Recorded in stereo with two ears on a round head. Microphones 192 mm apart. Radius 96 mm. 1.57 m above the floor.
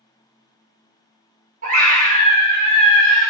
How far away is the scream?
About 0.8 m.